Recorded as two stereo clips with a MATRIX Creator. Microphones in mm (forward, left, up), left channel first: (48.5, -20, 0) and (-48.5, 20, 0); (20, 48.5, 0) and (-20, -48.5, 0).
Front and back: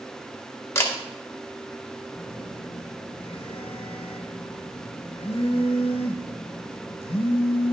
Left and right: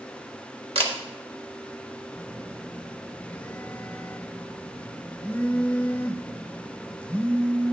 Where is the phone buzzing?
10° right, 0.5 m.